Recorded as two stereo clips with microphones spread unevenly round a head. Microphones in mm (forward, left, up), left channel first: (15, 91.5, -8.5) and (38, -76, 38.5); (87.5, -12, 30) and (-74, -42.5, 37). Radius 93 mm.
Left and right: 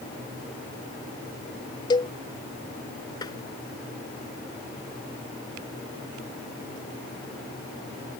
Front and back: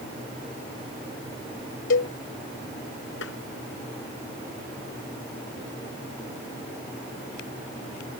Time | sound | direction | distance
1.9 | a cowbell | 30° left | ?
3.2 | tapping | 30° left | ?